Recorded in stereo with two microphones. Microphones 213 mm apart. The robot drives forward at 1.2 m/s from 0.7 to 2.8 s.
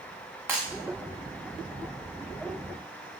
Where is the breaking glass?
10° right (ahead or behind), 6.5 m.